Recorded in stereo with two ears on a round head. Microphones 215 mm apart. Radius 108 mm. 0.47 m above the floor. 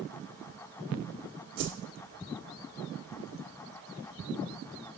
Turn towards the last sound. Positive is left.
turn(degrees=-70)  # may be behind; listen again after turning